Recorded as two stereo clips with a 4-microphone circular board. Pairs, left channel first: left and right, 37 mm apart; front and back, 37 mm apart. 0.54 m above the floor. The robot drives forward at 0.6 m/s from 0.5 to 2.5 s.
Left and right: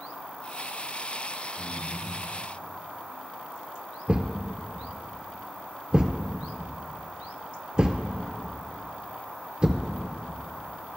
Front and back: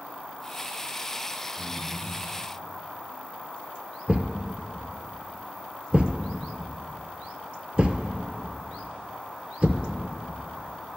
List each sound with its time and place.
1.6 s breathing: 160° left, 1.8 m; by 2.2 s 165° left, 2 m
4.1 s a thud: 135° right, 0.6 m